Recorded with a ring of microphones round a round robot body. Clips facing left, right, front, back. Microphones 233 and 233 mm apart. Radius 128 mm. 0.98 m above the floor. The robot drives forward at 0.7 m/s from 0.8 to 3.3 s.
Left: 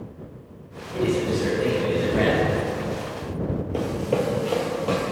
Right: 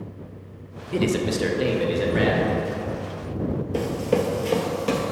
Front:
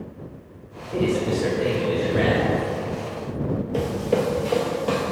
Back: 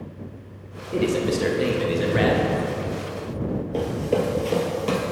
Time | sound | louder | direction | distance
0.9 | a man speaking | even, even | 105° right | 0.8 m
3.7 | running footsteps | right 1 dB, even | 70° right | 1.0 m